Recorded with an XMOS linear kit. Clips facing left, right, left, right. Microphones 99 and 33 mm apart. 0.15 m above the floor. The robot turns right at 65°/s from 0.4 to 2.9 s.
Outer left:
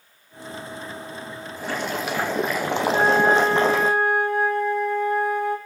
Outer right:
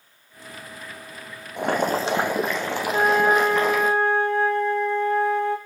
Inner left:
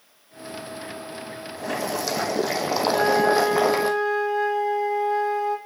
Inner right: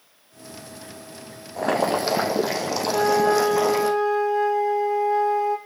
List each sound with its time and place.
1.6 s boiling: 60° right, 1.3 m; by 3.9 s 25° left, 1.3 m
2.9 s a flute: 5° left (ahead or behind), 2.5 m